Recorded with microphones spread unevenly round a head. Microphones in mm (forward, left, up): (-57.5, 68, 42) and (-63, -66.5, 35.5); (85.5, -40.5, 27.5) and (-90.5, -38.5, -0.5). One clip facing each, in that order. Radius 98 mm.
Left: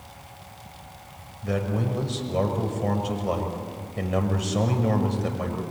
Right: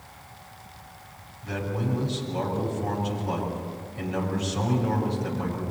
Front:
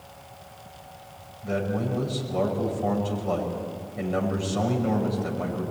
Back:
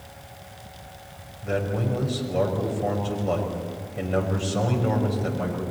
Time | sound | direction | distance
1.4 | a man speaking | 115° left | 6 m